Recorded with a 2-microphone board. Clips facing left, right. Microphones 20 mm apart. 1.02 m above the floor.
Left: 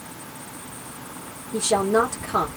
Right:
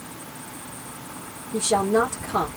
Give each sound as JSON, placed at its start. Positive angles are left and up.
{"t": 1.5, "sound": "a woman speaking", "side_deg": 20, "distance_m": 0.9}